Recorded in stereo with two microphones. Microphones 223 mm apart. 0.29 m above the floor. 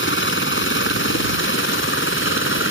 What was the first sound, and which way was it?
A helicopter, 65° left (ahead or behind).